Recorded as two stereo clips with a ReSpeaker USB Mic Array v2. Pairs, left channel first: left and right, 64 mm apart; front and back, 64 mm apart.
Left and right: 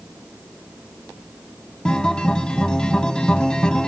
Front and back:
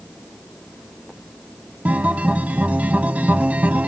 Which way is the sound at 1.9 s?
150° left.